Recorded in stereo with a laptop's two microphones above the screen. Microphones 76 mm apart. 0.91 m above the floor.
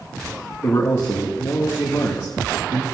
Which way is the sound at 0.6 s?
40° left (ahead or behind).